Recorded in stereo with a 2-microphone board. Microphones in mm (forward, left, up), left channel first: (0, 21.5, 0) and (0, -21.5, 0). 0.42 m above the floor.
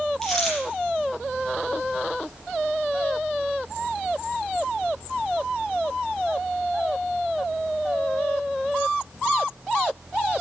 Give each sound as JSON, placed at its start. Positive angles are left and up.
{"t": 0.2, "sound": "a dropped coin", "side_deg": 10, "distance_m": 6.0}